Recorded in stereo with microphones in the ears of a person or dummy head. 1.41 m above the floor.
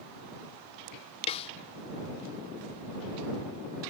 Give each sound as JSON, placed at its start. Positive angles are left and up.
{"t": 1.3, "sound": "a snare drum", "side_deg": 30}